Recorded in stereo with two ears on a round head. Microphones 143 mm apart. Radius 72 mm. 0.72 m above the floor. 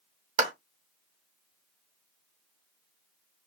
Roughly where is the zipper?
I don't hear a zipper.